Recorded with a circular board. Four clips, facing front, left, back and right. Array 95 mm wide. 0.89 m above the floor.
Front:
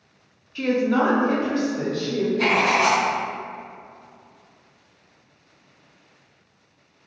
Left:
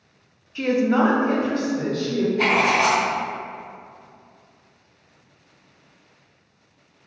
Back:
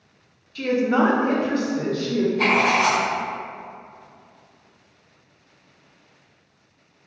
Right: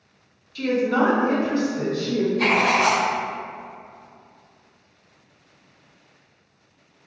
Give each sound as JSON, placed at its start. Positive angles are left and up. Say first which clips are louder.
{"t": 0.6, "sound": "a woman speaking", "louder": "left 1 dB, back 1 dB", "azimuth_deg": 60, "distance_m": 0.5}
{"t": 2.4, "sound": "writing", "louder": "left 1 dB, front 1 dB", "azimuth_deg": 110, "distance_m": 1.8}